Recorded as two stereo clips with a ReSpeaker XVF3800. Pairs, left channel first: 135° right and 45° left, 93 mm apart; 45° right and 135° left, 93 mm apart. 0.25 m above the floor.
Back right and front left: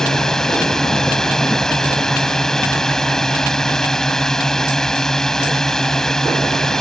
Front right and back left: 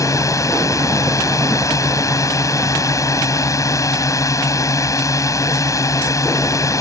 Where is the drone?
55° right.